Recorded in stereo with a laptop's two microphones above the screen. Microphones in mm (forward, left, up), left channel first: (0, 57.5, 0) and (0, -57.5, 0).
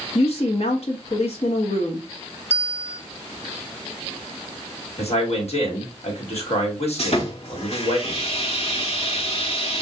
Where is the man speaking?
65° left (ahead or behind), 1.6 m.